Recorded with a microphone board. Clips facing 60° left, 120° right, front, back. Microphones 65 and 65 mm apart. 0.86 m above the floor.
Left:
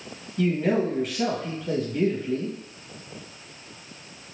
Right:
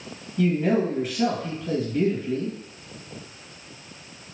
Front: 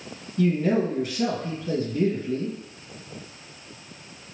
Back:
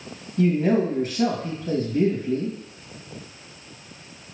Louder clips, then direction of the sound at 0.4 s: Right 1 dB, back 2 dB; 150° left.